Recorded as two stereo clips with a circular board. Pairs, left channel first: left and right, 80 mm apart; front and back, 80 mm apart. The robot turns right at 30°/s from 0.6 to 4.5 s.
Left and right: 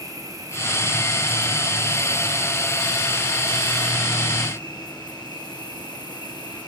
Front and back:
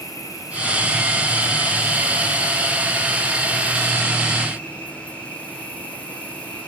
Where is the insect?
45° right, 6 m; by 6.7 s 70° left, 6 m.